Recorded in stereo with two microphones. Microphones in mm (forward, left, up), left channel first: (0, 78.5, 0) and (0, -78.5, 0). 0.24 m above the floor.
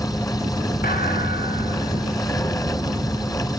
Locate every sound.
0.8 s a thud: 70° left (ahead or behind), 5 m